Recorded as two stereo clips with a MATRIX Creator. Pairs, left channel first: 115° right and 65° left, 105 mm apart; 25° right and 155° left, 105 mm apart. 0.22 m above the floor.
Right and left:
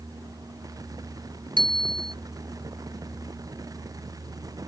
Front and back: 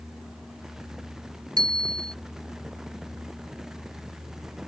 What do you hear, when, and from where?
1.6 s a bicycle bell: 110° left